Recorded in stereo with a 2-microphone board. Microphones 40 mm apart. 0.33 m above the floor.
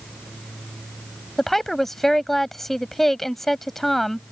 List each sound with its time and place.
1.4 s a woman speaking: 5° left (ahead or behind)